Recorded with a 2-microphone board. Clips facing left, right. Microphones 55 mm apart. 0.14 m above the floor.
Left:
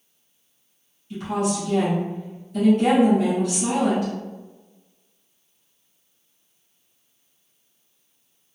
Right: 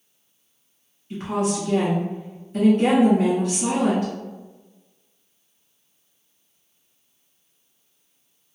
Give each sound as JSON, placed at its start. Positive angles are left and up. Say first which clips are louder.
{"t": 1.1, "sound": "a woman speaking", "louder": "even", "side_deg": -35, "distance_m": 1.2}